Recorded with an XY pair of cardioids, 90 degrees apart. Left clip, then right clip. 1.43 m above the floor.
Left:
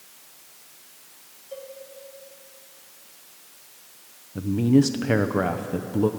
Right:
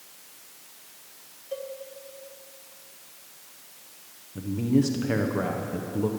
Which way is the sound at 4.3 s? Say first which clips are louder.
Left 5 dB; 50° left.